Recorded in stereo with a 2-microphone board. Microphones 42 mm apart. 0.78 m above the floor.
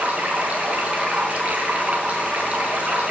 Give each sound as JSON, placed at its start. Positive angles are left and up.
{"t": 0.0, "sound": "running water", "side_deg": -35, "distance_m": 4.5}